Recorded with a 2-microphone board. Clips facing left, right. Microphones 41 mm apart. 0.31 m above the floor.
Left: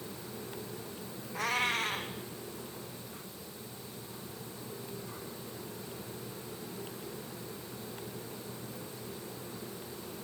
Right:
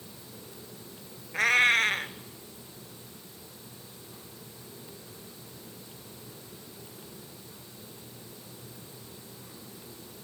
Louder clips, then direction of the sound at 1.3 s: Right 9 dB; 80° right.